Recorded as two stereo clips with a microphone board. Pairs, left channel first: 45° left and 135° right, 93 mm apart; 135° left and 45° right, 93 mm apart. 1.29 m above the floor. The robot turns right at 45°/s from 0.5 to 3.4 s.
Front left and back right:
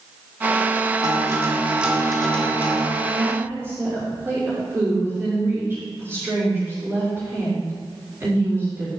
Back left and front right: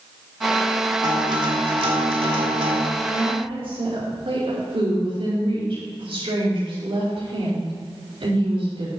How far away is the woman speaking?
About 4 m.